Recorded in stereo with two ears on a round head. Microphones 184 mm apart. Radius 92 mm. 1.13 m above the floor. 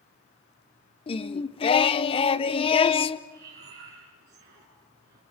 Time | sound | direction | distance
1.1 | singing | 25° left (ahead or behind) | 0.8 m
3.3 | breathing | 50° right (ahead or behind) | 7.5 m